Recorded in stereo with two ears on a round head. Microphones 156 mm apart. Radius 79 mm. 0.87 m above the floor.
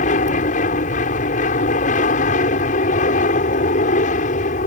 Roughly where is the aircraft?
Left.